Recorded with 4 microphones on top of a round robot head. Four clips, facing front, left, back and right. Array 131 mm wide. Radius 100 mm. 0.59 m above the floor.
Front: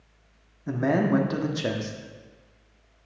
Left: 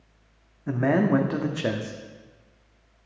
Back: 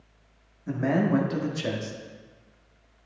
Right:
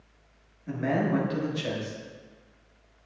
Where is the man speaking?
65° left, 1.0 m.